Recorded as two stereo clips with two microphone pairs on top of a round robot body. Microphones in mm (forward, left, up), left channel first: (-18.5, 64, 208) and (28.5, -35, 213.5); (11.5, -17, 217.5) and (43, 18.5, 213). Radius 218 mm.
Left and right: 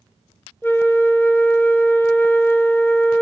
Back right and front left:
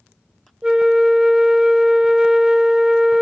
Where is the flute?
85° left, 0.7 m.